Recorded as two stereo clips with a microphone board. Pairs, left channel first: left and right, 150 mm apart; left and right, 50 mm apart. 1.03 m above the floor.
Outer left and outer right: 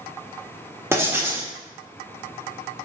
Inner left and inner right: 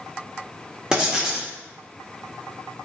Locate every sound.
0.9 s writing: 15° right (ahead or behind), 1.3 m